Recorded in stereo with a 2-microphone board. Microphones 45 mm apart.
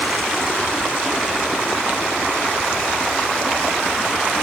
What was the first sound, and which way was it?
Only background noise.